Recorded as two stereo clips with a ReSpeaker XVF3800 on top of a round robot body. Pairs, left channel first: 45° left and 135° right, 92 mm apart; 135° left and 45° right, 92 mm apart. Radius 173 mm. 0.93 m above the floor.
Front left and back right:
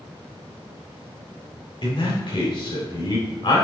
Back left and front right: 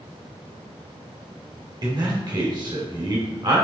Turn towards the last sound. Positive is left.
turn(degrees=0)